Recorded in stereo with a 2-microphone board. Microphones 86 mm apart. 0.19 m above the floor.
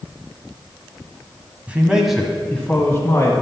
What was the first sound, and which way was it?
A man speaking, 15° right (ahead or behind).